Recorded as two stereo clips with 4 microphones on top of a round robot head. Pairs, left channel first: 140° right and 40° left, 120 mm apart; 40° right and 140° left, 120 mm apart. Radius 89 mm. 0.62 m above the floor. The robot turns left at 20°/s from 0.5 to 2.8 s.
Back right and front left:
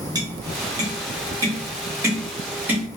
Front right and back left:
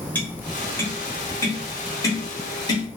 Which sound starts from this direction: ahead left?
Tapping, at 0.1 s.